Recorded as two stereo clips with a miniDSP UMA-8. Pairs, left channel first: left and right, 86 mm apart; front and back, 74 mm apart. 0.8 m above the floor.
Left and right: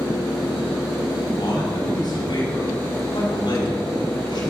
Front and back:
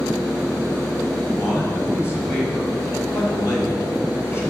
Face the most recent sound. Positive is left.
turn(degrees=55)